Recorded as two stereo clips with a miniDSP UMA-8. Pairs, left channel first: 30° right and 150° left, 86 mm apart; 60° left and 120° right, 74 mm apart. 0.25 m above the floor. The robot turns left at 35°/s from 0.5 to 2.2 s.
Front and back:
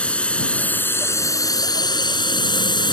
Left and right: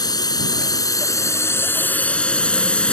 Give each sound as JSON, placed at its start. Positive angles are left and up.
{"t": 0.0, "sound": "a drone", "azimuth_deg": 45}